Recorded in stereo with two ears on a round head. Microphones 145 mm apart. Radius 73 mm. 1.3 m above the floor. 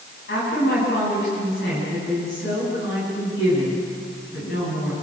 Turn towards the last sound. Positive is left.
turn(degrees=70)  # may be behind; listen again after turning